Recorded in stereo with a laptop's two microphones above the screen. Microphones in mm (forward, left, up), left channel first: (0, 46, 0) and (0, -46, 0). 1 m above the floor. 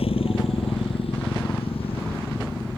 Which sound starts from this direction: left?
A motorcycle, at 0.0 s.